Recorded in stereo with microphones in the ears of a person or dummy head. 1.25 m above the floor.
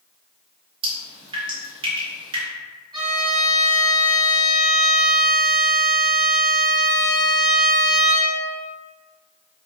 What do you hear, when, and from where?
0.8 s dripping: 25° right (ahead or behind), 1.2 m
2.9 s a violin: 20° right (ahead or behind), 2.0 m